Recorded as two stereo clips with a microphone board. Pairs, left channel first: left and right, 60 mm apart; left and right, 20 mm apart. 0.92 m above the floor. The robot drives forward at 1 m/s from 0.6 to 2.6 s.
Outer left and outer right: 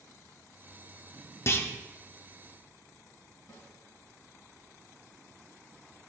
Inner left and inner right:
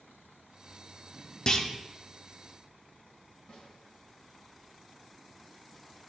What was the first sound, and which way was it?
A clunk, 45° left (ahead or behind).